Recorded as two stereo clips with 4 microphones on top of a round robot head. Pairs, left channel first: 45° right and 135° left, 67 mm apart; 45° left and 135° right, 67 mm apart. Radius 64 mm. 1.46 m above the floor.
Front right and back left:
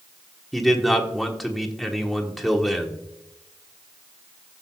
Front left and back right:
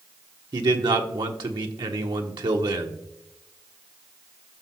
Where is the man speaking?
135° right, 1.1 m.